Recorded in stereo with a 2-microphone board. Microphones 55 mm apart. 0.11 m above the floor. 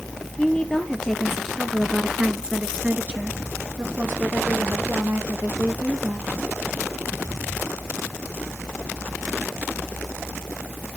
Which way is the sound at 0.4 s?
20° left (ahead or behind).